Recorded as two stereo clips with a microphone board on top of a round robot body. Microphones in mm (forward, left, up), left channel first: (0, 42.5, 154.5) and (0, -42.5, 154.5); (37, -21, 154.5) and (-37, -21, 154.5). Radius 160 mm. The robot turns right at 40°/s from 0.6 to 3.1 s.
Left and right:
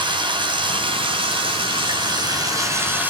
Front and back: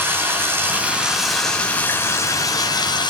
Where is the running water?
120° right, 4.5 m; by 3.1 s 20° right, 4.5 m.